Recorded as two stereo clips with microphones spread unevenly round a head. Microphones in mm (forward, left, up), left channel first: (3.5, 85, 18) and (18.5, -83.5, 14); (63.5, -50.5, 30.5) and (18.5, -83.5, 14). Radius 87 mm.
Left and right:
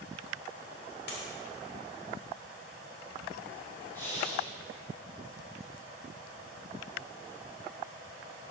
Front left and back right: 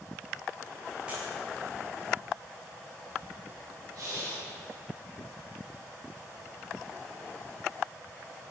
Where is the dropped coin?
125° left, 2 m.